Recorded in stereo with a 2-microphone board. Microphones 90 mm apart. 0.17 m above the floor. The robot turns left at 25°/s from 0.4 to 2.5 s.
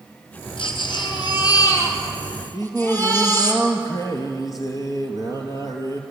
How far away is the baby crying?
About 3.5 m.